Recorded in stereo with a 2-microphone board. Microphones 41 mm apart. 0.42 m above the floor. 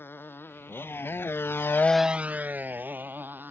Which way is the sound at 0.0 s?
65° left (ahead or behind).